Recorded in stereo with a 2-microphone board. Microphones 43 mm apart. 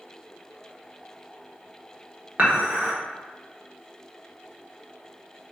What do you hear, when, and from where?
2.4 s dishes clattering: 45° right (ahead or behind), 1.0 m